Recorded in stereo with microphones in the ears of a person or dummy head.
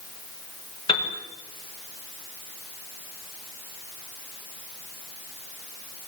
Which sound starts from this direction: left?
A piano, at 0.9 s.